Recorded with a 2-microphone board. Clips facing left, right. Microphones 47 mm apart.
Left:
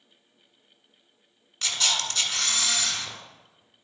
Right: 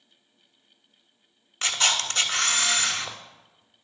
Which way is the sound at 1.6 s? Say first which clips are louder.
Right 3 dB; 40° right (ahead or behind).